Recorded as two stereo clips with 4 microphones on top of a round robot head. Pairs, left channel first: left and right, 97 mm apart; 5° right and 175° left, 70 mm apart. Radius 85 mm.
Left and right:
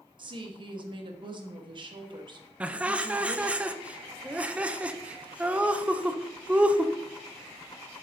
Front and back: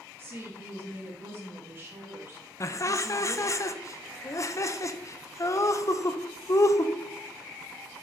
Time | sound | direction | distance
0.2 | a woman speaking | 125° right | 1.4 m
2.6 | laughter | 20° right | 0.7 m